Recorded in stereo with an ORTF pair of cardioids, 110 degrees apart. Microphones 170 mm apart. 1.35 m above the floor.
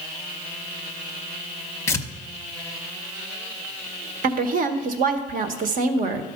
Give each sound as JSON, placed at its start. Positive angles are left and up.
{"t": 1.9, "sound": "tearing paper", "azimuth_deg": 15, "distance_m": 0.9}
{"t": 4.2, "sound": "a woman speaking", "azimuth_deg": -50, "distance_m": 1.2}